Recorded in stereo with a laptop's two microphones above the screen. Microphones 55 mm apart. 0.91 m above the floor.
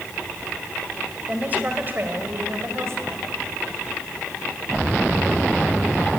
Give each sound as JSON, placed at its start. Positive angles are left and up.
{"t": 1.3, "sound": "a woman speaking", "side_deg": -25, "distance_m": 3.5}